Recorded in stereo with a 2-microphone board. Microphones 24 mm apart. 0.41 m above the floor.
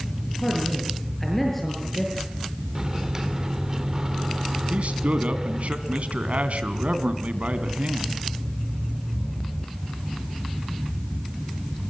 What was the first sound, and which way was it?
A man speaking, 5° left (ahead or behind).